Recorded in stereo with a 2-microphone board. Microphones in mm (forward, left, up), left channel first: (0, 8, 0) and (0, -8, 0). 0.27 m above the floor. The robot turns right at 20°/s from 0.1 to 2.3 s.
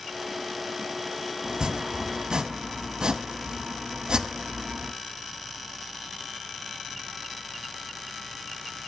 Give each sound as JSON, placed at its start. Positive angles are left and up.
{"t": 1.4, "sound": "chopping", "side_deg": -60, "distance_m": 1.0}